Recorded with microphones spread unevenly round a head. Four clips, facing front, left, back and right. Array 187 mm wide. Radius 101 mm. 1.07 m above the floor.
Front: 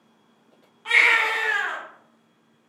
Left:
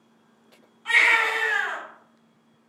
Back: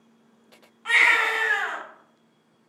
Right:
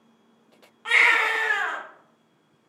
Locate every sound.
0.8 s a baby crying: 75° right, 1.3 m